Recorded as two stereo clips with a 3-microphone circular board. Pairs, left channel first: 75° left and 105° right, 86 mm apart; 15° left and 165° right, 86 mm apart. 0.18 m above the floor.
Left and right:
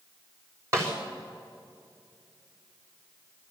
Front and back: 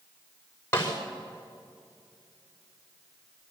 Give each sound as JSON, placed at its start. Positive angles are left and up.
{"t": 0.7, "sound": "a snare drum", "azimuth_deg": -45, "distance_m": 5.5}